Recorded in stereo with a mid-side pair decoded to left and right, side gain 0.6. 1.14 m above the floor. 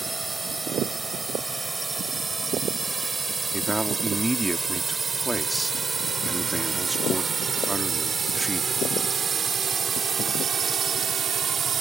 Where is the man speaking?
5° right.